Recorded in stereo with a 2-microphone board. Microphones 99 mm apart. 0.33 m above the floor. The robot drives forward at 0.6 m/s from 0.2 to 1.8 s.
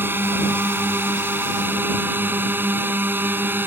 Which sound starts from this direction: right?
A drone, at 0.0 s.